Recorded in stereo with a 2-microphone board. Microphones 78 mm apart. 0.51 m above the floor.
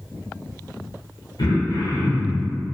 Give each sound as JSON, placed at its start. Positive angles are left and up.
{"t": 1.4, "sound": "throat clearing", "side_deg": 65, "distance_m": 0.7}